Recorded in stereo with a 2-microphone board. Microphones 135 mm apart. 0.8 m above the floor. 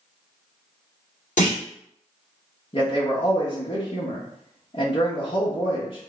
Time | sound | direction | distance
1.4 | a clunk | 70° left (ahead or behind) | 1.9 m
2.7 | a man speaking | 40° left (ahead or behind) | 1.0 m